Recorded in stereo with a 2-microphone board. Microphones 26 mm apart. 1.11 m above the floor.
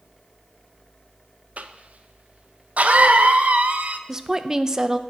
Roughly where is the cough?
Right.